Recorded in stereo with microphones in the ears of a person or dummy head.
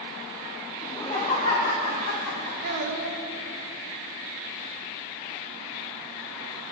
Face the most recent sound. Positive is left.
turn(degrees=-55)  # may be behind; listen again after turning